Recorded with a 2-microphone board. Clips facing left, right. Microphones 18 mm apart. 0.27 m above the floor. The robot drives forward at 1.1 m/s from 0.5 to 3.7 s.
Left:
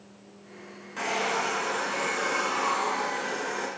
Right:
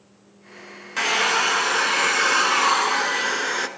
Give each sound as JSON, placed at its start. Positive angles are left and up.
{"t": 1.0, "sound": "a hair dryer", "side_deg": -60, "distance_m": 3.0}